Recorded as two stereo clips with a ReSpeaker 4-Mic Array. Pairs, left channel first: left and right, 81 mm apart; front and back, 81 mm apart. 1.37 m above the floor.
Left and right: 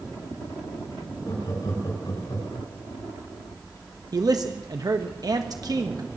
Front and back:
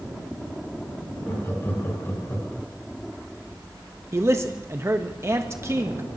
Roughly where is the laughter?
Ahead left.